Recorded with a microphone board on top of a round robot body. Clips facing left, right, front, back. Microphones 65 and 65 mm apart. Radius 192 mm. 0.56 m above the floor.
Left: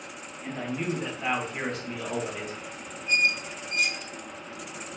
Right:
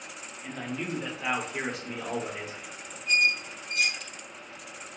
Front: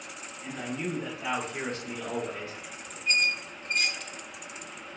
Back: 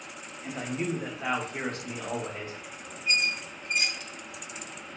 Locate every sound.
0.4 s a man speaking: 155° left, 1.6 m; by 3.0 s 140° right, 1.7 m
3.1 s a squeak: 100° right, 0.8 m